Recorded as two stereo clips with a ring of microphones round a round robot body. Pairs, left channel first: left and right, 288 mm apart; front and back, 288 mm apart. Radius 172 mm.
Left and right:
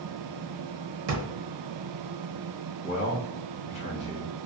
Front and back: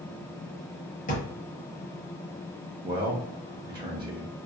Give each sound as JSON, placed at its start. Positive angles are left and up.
{"t": 1.1, "sound": "a drawer", "azimuth_deg": -65, "distance_m": 1.0}
{"t": 2.8, "sound": "a man speaking", "azimuth_deg": 125, "distance_m": 1.0}